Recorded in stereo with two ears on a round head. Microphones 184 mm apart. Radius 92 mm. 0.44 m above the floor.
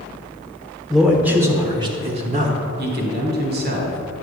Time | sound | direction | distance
0.9 | a man speaking | centre (ahead or behind) | 1.2 m
2.8 | a man speaking | 50° right (ahead or behind) | 1.6 m